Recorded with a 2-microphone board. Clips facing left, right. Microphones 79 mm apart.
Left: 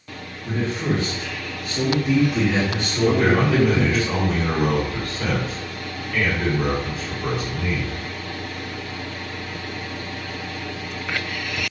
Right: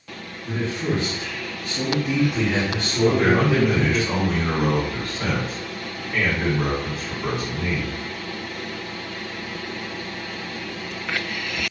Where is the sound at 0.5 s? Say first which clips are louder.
Left 1 dB; 45° left (ahead or behind), 1.1 m; by 4.0 s 15° right (ahead or behind), 1.6 m.